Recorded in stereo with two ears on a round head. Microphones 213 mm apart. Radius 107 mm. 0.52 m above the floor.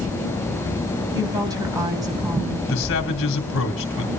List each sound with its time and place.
1.1 s a woman speaking: 15° right (ahead or behind), 3 m
2.7 s a man speaking: 55° left (ahead or behind), 2.5 m